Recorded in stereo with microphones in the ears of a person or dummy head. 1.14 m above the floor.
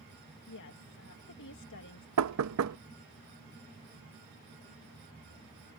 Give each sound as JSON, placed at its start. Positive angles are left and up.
{"t": 0.5, "sound": "a woman speaking", "side_deg": 60}
{"t": 2.2, "sound": "knocking", "side_deg": -85}